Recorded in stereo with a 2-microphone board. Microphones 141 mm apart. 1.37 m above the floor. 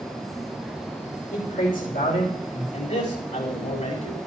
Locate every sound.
1.3 s a man speaking: 85° left, 6 m
2.7 s a man speaking: 70° left (ahead or behind), 4.5 m